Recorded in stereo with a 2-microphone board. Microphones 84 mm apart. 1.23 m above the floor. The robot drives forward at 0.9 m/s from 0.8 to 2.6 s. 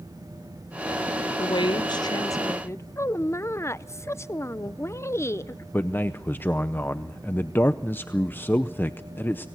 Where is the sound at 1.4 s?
65° left (ahead or behind), 0.7 m; by 2.9 s 35° left (ahead or behind), 1.1 m.